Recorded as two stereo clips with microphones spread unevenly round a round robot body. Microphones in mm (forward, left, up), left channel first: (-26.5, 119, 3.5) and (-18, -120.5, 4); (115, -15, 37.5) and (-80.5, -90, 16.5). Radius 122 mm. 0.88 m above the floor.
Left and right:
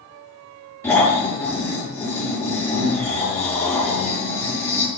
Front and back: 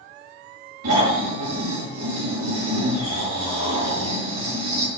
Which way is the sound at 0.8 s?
175° left.